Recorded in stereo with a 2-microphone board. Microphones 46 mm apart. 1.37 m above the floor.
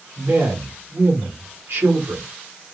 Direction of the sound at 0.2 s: 75° right (ahead or behind).